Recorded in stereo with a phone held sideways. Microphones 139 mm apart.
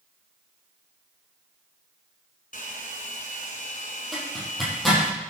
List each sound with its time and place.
2.5 s a hair dryer: 70° left (ahead or behind), 2.5 m
4.1 s a zipper: centre (ahead or behind), 8.5 m